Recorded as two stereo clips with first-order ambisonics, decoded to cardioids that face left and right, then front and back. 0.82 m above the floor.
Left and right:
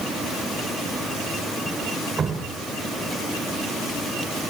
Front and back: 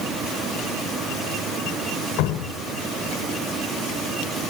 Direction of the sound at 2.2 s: 25° right.